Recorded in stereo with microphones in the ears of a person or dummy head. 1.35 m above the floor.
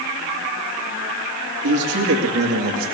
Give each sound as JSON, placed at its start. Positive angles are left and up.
{"t": 1.6, "sound": "a man speaking", "side_deg": -70, "distance_m": 2.5}